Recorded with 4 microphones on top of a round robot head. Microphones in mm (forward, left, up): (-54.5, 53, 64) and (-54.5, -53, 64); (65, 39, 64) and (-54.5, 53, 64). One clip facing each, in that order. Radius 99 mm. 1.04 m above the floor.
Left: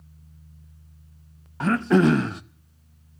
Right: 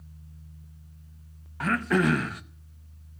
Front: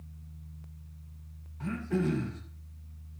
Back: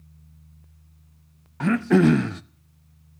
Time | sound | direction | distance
1.6 | throat clearing | 155° left | 0.7 m